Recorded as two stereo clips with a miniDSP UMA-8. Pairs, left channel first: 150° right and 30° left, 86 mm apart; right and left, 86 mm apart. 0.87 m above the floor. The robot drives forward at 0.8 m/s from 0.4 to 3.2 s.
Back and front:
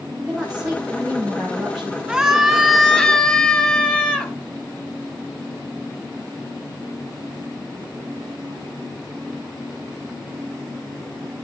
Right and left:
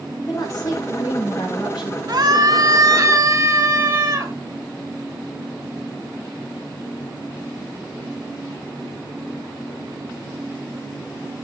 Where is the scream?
110° left, 1.7 m; by 4.3 s 135° left, 2 m.